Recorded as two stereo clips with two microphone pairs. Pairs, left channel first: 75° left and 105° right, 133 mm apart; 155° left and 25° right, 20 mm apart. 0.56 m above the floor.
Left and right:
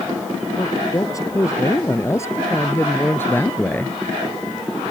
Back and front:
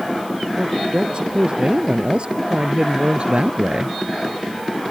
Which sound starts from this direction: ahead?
A man speaking, at 0.6 s.